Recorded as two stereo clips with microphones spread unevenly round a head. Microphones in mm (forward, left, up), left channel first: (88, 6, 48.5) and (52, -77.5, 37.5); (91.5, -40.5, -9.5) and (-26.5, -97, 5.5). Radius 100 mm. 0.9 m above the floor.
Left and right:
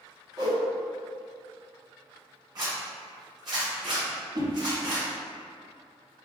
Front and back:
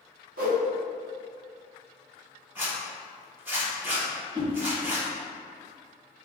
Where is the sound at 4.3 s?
100° right, 1.5 m.